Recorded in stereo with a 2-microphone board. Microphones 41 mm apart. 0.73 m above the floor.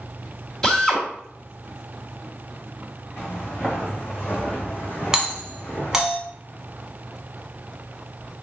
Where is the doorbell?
10° right (ahead or behind), 1.3 m.